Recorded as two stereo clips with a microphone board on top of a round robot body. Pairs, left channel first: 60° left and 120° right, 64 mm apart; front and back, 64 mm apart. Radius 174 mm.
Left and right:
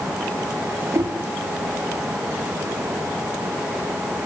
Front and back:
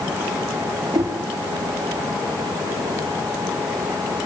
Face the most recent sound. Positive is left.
turn(degrees=-160)